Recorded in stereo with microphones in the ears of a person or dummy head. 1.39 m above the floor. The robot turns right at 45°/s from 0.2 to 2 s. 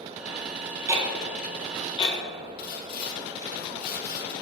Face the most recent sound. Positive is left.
turn(degrees=55)  # may be behind; listen again after turning